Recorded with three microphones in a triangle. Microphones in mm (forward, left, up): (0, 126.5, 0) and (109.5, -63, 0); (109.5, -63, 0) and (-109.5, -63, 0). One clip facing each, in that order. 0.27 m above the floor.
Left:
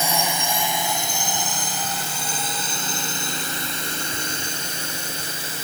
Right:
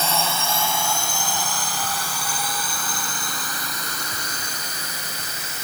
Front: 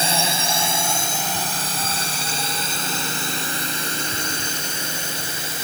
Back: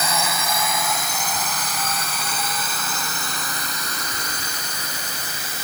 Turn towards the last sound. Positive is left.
turn(degrees=60)